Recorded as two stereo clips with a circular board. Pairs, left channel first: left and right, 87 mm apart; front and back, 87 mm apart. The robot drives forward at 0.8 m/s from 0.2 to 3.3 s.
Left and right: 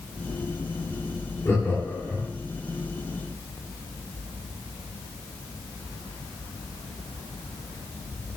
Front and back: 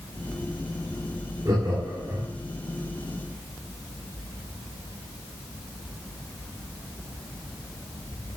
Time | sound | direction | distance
1.4 | laughter | 145° left | 2.5 m